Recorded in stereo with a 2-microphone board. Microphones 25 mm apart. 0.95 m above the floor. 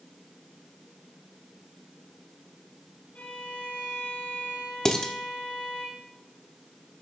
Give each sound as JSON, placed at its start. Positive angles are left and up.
{"t": 3.1, "sound": "a violin", "side_deg": 80, "distance_m": 4.5}
{"t": 4.8, "sound": "dishes clattering", "side_deg": 30, "distance_m": 1.2}